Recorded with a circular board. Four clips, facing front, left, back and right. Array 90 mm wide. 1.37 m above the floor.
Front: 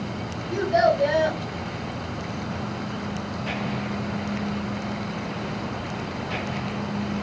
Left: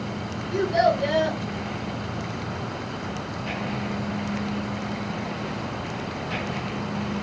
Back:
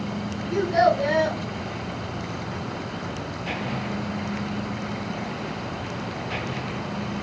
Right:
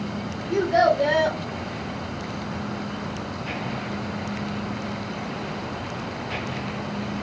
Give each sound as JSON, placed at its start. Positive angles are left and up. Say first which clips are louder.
{"t": 0.5, "sound": "a child speaking", "louder": "right 2 dB, even", "azimuth_deg": -85, "distance_m": 1.0}